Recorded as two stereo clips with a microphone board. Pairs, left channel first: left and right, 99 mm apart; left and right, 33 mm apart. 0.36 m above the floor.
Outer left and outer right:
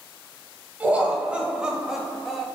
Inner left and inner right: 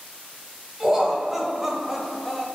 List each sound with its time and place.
0.8 s laughter: 15° right (ahead or behind), 1.9 m; by 2.5 s centre (ahead or behind), 1.3 m